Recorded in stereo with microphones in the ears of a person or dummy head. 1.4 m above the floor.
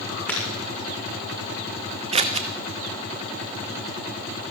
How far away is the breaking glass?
About 7 m.